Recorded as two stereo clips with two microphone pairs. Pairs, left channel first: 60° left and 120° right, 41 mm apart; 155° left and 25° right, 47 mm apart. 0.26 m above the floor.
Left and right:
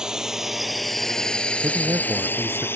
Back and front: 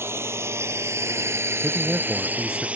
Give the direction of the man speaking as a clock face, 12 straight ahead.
3 o'clock.